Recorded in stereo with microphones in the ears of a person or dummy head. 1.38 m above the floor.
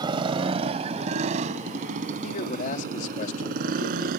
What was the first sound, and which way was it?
A motorcycle, 30° right (ahead or behind).